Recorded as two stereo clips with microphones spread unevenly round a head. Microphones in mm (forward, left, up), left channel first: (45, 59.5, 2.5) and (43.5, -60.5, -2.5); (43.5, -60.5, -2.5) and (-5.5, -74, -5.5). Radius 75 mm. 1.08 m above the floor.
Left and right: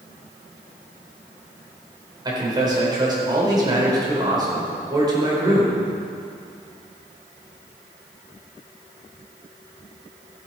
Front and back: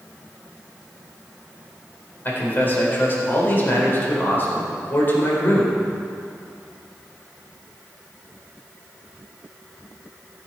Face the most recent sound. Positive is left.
turn(degrees=-35)